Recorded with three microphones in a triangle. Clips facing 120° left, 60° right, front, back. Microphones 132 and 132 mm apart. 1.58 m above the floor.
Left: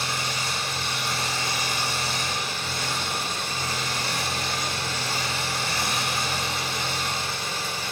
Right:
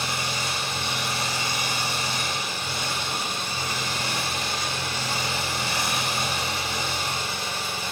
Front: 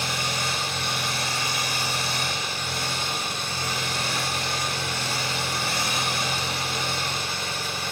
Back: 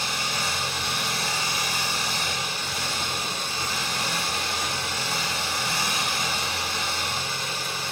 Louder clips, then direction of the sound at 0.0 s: Right 1 dB, front 1 dB; 10° left.